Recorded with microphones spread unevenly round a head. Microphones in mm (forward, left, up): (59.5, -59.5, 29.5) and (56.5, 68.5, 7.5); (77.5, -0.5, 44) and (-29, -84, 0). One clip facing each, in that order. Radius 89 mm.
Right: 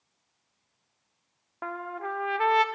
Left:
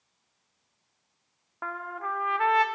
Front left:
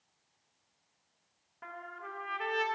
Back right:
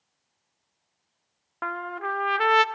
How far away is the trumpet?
About 0.6 m.